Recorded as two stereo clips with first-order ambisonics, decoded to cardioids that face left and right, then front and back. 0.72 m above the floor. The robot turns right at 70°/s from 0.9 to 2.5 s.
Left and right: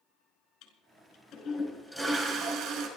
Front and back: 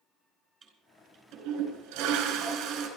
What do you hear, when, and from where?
0.6 s a toilet flushing: 115° left, 4.5 m; by 2.9 s 130° right, 4.5 m